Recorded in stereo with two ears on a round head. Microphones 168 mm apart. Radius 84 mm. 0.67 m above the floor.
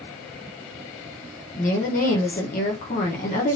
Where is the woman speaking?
45° left (ahead or behind), 1.2 m.